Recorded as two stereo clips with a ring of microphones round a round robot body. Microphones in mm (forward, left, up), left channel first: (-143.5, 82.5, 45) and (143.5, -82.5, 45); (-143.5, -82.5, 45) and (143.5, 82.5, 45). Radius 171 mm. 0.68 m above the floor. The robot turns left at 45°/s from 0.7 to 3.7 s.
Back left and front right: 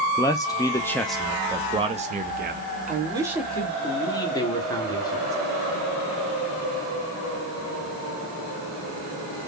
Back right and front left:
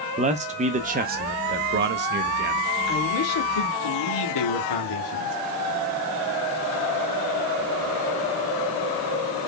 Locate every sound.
0.2 s a man speaking: 80° left, 0.6 m; by 2.6 s 5° right, 0.6 m
2.9 s a man speaking: 95° right, 1.7 m; by 5.4 s 130° right, 1.7 m